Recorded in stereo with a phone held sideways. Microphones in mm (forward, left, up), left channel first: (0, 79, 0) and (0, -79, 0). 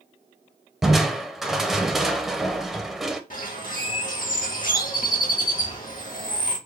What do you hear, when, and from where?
0.8 s crushing: centre (ahead or behind), 0.6 m
3.3 s a bird: 60° left (ahead or behind), 1.5 m